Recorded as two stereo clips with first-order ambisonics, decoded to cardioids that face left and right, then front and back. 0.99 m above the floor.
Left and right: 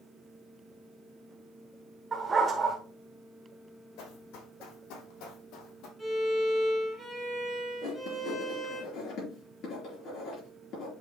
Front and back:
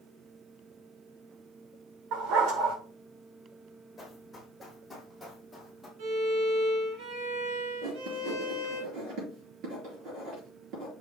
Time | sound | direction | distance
2.1 | a dog barking | 160° right | 1.3 m
4.0 | running footsteps | 85° left | 3.5 m
6.0 | a violin | straight behind | 4 m
7.8 | writing | 140° left | 5 m